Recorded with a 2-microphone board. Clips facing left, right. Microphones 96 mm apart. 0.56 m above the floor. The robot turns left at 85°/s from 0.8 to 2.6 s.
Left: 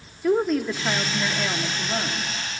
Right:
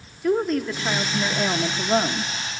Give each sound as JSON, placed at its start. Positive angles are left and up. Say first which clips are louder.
{"t": 0.2, "sound": "a woman speaking", "louder": "left 1 dB", "azimuth_deg": 5, "distance_m": 0.9}